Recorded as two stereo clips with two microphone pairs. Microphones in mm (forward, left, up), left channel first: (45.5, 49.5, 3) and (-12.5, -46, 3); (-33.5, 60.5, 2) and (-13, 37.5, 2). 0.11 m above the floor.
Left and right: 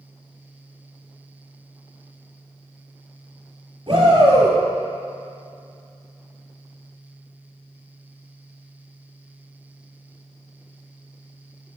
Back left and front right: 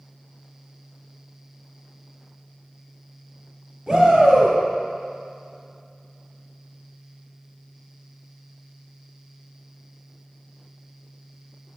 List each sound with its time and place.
3.9 s a shout: 125° right, 1.6 m